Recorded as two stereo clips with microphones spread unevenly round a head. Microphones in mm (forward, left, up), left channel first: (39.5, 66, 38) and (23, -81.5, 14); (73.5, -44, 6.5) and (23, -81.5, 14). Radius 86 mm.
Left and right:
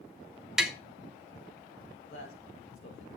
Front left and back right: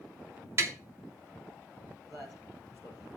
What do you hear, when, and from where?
0.6 s tapping: 170° left, 0.8 m
2.0 s a man speaking: 105° left, 5 m